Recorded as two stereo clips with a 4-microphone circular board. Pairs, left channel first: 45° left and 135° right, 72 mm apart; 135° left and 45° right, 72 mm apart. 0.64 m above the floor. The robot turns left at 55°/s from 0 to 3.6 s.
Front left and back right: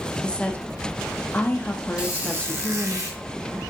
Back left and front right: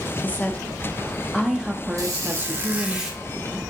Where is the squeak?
60° right, 0.8 m; by 3.2 s 130° right, 0.8 m.